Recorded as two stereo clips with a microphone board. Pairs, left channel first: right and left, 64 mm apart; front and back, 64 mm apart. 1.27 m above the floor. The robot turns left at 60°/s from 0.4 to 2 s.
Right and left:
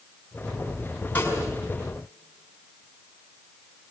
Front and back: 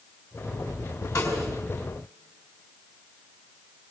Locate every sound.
1.1 s a snare drum: 25° right, 6 m; by 1.5 s 50° right, 6 m